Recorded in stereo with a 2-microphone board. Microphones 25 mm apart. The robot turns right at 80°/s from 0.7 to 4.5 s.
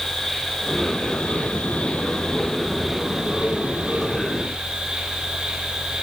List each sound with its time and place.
0.0 s an insect: 5° left, 9 m; by 6.0 s 50° right, 9 m